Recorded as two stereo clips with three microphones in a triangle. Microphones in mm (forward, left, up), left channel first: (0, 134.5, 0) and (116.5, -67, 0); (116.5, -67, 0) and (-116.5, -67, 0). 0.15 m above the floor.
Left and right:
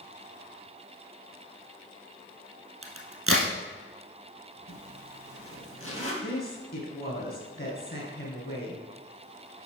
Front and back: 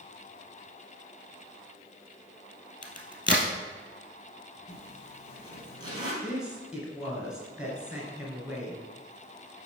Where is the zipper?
110° left, 3 m.